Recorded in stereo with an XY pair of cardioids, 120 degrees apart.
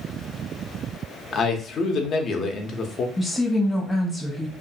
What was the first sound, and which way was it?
A man speaking, 50° left.